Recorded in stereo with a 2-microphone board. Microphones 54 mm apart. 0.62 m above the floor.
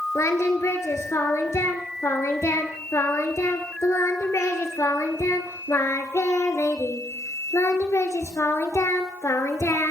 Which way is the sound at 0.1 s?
60° left (ahead or behind).